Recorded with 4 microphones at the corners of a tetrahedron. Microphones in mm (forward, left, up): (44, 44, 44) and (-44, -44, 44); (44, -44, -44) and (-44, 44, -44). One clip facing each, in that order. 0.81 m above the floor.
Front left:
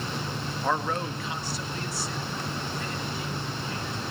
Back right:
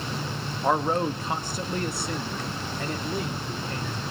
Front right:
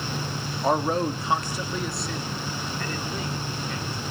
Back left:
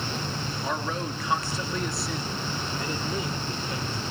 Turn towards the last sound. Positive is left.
turn(degrees=-170)